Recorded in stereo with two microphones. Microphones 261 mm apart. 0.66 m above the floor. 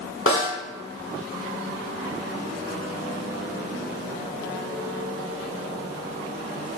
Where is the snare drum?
50° left (ahead or behind), 1.9 m.